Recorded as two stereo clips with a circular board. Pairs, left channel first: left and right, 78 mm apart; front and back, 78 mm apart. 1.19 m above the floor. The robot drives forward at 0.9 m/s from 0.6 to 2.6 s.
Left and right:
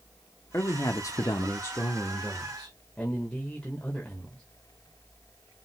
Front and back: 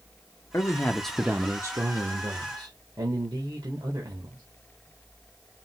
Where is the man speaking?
45° left, 0.8 m; by 4.4 s 160° left, 1.5 m.